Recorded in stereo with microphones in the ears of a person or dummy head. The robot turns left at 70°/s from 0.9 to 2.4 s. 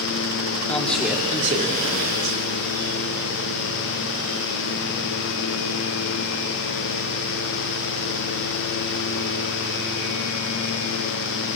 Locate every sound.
0.7 s a man speaking: straight ahead, 3 m; by 2.4 s 100° right, 3 m